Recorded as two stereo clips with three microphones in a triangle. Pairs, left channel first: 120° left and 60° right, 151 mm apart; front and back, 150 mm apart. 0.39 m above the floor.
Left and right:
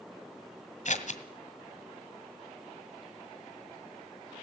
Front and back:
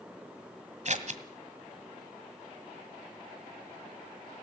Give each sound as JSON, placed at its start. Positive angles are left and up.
{"t": 0.8, "sound": "scissors", "azimuth_deg": 150, "distance_m": 1.8}